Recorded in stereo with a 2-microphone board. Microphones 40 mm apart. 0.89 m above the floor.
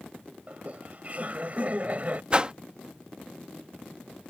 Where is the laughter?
40° right (ahead or behind).